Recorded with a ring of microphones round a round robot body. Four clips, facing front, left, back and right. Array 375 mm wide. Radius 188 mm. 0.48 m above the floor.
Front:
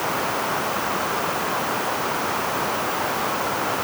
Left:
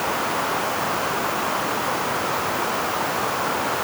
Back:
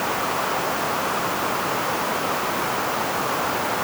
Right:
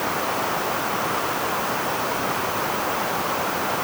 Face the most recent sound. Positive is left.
No sound to turn to.